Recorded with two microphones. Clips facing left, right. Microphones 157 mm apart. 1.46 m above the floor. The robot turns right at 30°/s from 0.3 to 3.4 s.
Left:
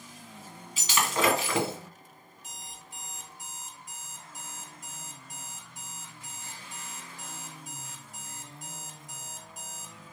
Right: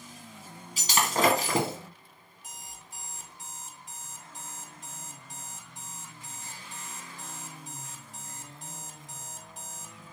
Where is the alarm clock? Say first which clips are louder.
Even; 50° right (ahead or behind), 1.8 m; by 10.0 s 25° right (ahead or behind), 1.8 m.